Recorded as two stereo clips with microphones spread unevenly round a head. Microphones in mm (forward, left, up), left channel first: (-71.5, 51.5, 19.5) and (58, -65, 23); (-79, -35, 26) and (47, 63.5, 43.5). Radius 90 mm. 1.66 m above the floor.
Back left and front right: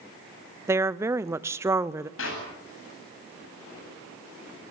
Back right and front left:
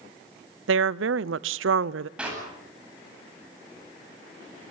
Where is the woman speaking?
35° left, 0.8 m.